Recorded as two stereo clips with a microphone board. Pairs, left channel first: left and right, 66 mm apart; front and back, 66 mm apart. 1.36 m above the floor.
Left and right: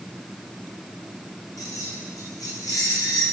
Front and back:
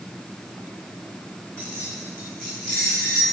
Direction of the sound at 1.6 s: 70° left.